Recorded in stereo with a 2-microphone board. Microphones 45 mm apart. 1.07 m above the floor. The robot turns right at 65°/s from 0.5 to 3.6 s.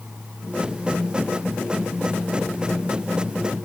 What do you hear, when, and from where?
Only background noise.